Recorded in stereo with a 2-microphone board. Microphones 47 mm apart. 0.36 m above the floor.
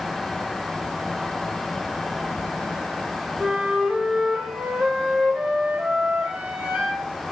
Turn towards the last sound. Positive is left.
turn(degrees=-30)  # may be behind; listen again after turning